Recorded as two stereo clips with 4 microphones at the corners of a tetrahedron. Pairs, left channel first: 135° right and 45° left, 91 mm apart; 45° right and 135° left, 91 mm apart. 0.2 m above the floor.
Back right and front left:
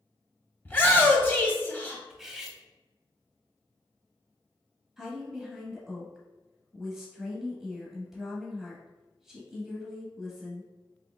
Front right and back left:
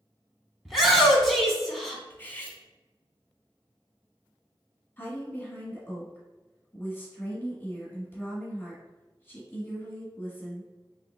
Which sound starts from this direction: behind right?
A shout, at 0.7 s.